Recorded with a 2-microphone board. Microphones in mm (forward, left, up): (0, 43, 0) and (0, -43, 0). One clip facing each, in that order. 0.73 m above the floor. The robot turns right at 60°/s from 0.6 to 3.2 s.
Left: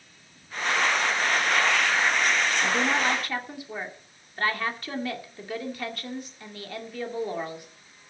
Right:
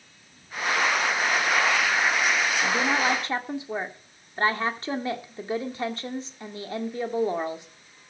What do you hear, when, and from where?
2.6 s a woman speaking: 175° left, 2 m; by 7.7 s 150° right, 2 m